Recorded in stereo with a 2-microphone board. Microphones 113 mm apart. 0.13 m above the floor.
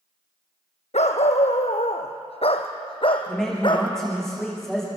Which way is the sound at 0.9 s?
80° left.